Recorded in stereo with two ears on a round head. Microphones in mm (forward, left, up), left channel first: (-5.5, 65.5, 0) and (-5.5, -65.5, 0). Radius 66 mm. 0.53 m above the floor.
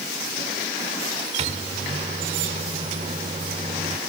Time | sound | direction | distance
1.4 | a microwave | 45° right (ahead or behind) | 1.2 m